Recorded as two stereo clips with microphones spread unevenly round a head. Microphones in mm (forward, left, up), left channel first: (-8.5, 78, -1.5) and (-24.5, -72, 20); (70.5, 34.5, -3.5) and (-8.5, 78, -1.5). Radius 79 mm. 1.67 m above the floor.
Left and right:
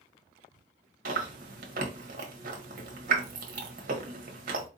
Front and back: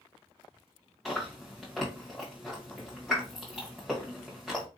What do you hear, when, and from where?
1.1 s chewing: 120° right, 1.0 m